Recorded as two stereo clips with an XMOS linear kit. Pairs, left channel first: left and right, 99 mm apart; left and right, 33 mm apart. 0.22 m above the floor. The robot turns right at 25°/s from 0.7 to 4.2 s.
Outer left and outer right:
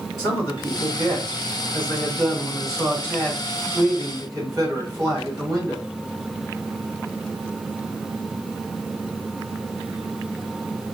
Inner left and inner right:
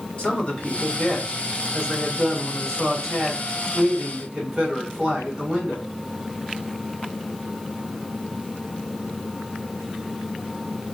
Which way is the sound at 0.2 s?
135° left.